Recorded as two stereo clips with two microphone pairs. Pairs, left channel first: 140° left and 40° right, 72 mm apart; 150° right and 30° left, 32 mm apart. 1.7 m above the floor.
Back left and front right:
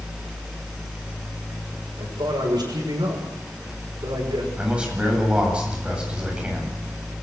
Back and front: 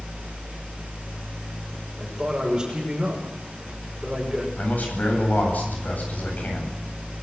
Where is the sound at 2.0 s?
45° right, 6.5 m.